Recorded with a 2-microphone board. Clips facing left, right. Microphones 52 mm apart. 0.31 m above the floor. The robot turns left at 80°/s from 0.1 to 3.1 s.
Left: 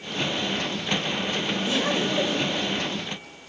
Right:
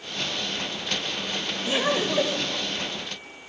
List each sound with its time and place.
1.6 s laughter: 20° right (ahead or behind), 1.4 m; by 2.6 s 10° right (ahead or behind), 1.4 m